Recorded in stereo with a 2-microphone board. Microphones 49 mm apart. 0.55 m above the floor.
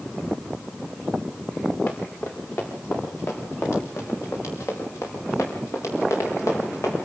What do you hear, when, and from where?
1.9 s running footsteps: 50° left (ahead or behind), 7.5 m; by 7.1 s 85° left, 7 m